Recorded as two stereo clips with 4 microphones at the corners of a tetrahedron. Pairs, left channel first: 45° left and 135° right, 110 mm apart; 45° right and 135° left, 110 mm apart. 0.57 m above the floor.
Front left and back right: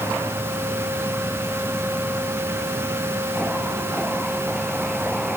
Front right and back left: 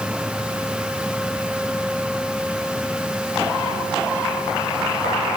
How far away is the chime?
I don't hear a chime.